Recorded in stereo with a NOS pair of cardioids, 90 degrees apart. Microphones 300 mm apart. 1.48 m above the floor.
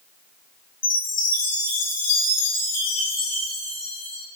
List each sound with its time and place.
0.8 s a chime: 55° left, 3.5 m